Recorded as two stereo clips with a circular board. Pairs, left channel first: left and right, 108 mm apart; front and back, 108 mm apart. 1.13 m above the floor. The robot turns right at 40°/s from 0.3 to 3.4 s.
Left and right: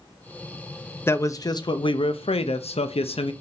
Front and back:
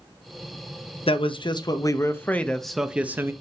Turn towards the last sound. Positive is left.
turn(degrees=115)